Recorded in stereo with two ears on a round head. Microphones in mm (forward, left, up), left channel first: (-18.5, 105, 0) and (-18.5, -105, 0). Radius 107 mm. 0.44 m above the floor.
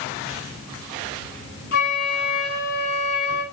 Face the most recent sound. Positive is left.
turn(degrees=45)  # may be behind; listen again after turning